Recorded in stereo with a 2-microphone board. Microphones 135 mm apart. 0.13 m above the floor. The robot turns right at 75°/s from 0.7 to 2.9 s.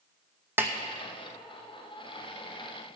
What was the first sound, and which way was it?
A snare drum, 15° right (ahead or behind).